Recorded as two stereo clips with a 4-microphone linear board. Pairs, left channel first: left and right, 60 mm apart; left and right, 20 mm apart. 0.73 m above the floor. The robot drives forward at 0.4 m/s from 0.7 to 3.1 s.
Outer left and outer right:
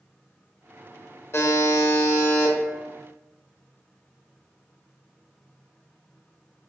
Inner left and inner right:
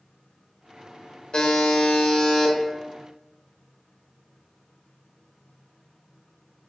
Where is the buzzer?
45° left (ahead or behind), 0.5 m; by 2.5 s 35° left (ahead or behind), 0.7 m.